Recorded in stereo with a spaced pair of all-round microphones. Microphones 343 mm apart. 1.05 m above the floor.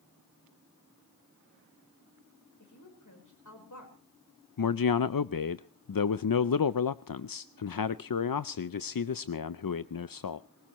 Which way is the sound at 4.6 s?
75° left (ahead or behind).